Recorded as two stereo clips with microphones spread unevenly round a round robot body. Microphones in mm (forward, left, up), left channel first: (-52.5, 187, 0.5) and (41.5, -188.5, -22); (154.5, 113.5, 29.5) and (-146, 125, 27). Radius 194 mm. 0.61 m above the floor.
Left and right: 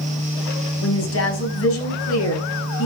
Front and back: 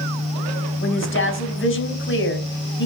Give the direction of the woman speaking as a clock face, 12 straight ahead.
10 o'clock.